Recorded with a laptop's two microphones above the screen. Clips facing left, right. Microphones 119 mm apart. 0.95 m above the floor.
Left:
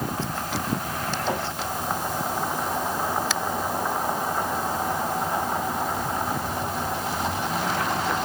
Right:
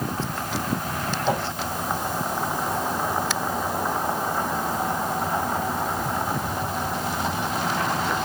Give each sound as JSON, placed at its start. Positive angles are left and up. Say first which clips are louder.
{"t": 1.2, "sound": "a whoosh", "louder": "right 4 dB", "side_deg": -10, "distance_m": 5.0}